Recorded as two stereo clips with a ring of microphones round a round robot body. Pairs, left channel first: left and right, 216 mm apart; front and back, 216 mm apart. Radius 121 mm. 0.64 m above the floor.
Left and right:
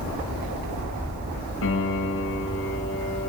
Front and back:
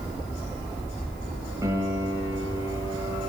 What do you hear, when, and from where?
1.6 s a piano: 105° left, 4.5 m